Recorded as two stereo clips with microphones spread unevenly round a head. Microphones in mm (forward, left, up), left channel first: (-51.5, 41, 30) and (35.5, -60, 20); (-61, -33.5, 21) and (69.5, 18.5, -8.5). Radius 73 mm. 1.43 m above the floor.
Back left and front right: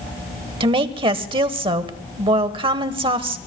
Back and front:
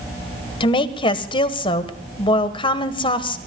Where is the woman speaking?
100° right, 1.2 m.